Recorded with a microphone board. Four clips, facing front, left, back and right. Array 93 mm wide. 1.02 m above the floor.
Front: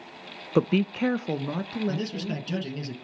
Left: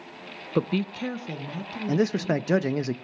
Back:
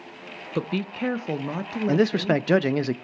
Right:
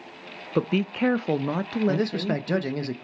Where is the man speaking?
165° left, 0.9 m.